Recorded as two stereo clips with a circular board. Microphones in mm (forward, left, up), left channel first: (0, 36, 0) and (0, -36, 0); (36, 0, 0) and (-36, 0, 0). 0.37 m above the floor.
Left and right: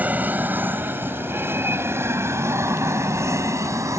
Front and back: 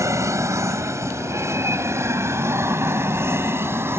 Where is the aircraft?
150° right; by 4.0 s 125° right.